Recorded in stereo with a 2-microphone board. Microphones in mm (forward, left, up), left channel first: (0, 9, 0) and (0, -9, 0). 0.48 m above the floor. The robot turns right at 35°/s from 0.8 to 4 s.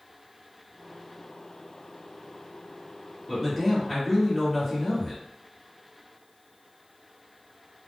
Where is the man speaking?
Centre (ahead or behind), 1.2 m; by 5.2 s 10° left (ahead or behind), 1.2 m.